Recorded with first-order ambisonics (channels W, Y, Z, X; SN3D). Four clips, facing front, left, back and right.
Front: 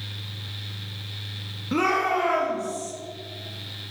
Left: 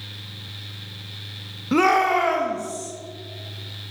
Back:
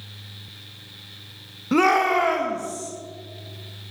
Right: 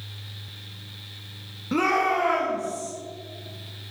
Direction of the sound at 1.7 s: 135° left.